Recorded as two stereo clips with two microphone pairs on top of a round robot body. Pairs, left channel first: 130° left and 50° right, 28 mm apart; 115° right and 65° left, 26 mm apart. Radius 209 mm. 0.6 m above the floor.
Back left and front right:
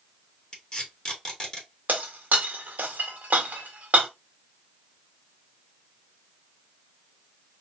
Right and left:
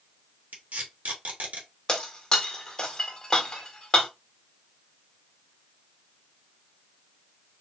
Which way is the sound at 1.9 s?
50° right.